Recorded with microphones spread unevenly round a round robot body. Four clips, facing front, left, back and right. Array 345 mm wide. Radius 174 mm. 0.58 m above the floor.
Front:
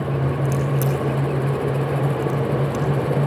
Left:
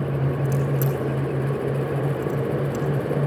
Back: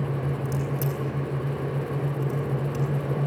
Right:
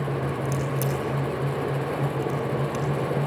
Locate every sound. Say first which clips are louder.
0.5 s a crack: left 3 dB, front 7 dB; 15° left, 6.5 m